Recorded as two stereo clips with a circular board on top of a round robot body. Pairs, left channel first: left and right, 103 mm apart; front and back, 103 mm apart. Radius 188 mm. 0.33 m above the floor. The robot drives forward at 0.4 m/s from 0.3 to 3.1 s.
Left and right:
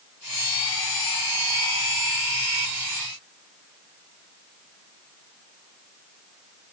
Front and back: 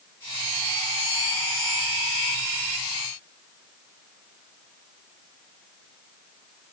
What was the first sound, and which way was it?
Only background noise.